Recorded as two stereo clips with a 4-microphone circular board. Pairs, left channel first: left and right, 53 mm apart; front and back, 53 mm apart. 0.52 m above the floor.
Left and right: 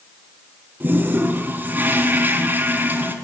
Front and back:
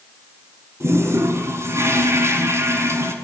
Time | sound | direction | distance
0.8 | a toilet flushing | 150° right | 6.5 m